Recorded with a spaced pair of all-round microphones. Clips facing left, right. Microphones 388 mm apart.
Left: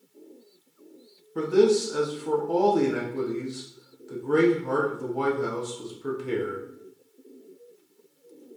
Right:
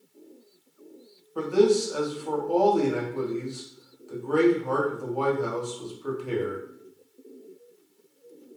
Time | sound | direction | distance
1.4 | a man speaking | 30° left (ahead or behind) | 0.5 m